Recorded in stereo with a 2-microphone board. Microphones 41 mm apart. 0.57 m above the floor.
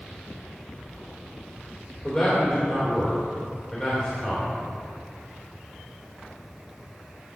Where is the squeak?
I don't hear a squeak.